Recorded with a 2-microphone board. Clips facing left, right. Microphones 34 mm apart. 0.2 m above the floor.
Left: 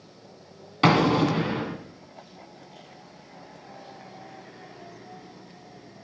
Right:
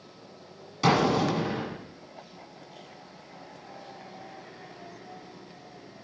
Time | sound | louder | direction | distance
0.8 | an explosion | left 3 dB | 40° left (ahead or behind) | 1.7 m